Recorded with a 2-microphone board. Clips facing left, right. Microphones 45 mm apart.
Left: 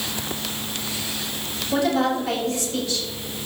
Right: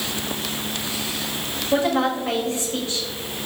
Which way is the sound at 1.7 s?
35° right (ahead or behind).